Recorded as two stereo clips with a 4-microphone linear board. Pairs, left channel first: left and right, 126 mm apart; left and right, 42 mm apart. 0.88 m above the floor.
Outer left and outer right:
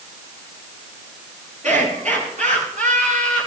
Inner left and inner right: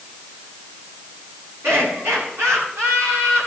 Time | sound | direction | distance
1.6 | laughter | 85° right | 9 m